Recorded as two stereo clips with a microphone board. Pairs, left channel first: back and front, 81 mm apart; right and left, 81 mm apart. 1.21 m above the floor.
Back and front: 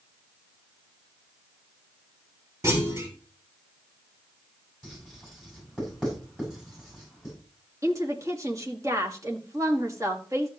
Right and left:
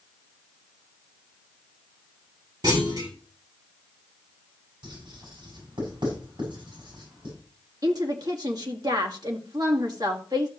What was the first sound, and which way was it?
A clunk, 55° left.